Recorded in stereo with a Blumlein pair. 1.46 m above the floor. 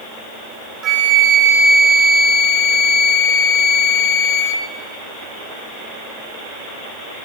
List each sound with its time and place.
0.8 s a flute: 25° right, 1.3 m